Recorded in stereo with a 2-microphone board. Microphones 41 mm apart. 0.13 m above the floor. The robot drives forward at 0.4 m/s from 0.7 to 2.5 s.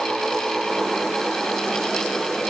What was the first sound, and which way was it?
Only background noise.